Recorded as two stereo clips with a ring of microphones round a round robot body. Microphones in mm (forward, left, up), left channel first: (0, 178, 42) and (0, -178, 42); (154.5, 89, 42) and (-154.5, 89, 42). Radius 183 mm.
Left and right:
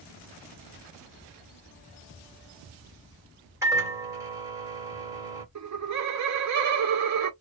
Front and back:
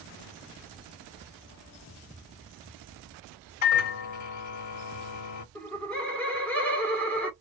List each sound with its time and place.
3.6 s a microwave: 10° right, 1.4 m
5.5 s laughter: 85° right, 1.5 m